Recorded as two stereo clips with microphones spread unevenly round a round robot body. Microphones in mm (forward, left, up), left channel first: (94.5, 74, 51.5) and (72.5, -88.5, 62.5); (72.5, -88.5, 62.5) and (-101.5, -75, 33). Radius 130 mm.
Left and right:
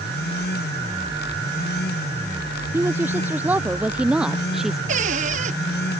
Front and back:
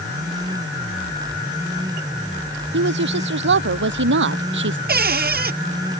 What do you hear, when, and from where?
2.7 s a woman speaking: straight behind; by 4.8 s 175° left
4.9 s a cupboard door: 155° right